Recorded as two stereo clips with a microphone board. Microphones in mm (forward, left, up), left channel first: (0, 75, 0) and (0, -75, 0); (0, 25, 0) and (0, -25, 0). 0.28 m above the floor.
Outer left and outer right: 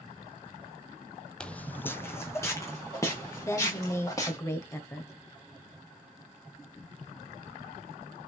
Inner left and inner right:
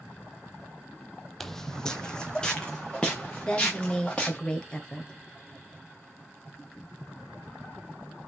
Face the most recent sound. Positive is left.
turn(degrees=20)  # may be behind; listen again after turning